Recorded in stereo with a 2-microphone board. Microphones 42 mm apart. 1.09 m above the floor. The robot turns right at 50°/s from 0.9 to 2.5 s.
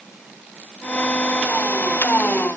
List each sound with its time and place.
Only background noise.